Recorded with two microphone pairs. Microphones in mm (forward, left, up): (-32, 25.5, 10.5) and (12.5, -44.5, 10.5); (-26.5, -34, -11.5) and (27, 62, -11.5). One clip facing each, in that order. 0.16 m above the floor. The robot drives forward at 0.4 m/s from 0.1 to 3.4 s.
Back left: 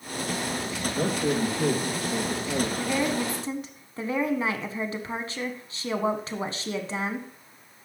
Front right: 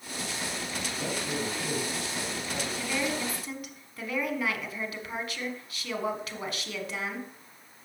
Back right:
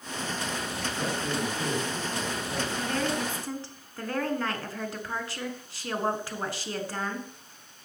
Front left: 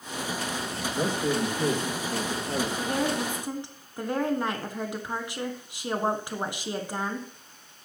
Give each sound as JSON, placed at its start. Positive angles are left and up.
{"t": 0.9, "sound": "a man speaking", "azimuth_deg": 105, "distance_m": 3.5}
{"t": 2.8, "sound": "a woman speaking", "azimuth_deg": 90, "distance_m": 1.3}